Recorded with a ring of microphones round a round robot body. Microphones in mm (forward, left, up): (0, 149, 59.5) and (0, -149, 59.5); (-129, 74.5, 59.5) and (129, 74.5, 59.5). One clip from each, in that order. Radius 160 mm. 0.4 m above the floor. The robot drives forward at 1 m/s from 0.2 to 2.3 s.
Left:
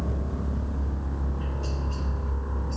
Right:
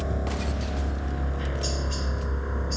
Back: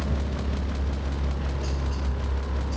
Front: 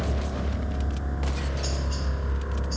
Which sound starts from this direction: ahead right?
A helicopter, at 0.0 s.